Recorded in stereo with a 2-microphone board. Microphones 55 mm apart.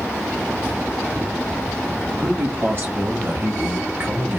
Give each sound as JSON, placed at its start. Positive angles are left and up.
{"t": 2.2, "sound": "a man speaking", "side_deg": -35, "distance_m": 1.5}